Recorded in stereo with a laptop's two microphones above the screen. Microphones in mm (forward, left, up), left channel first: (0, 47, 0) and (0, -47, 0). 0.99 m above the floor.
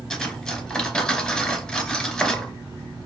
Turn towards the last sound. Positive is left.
turn(degrees=10)  # may be behind; listen again after turning